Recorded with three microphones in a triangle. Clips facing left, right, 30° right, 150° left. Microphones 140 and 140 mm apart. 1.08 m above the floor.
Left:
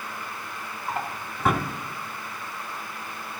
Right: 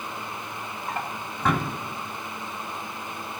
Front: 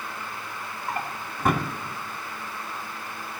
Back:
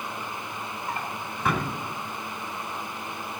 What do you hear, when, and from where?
0.9 s a drawer: 5° left, 1.8 m